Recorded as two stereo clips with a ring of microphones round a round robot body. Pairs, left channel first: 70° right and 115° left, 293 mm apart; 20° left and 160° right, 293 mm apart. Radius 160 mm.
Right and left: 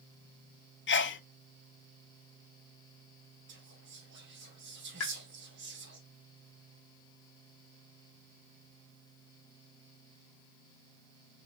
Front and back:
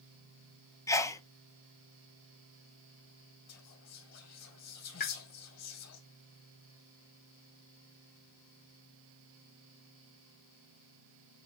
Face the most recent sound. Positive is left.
turn(degrees=-35)